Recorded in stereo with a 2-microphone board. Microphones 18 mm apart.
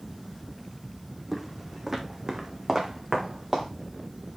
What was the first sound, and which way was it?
Footsteps, 10° right (ahead or behind).